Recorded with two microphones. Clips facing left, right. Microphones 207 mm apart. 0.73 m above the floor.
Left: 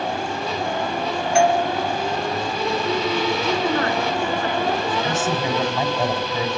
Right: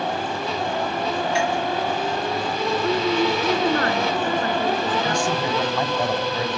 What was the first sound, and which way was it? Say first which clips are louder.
A doorbell: left 10 dB; 50° left (ahead or behind).